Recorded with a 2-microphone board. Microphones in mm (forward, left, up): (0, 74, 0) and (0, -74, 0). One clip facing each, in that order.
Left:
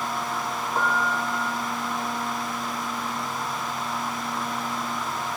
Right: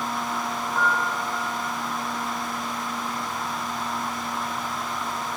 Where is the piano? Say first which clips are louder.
Left 1 dB; 40° left (ahead or behind), 1.7 m.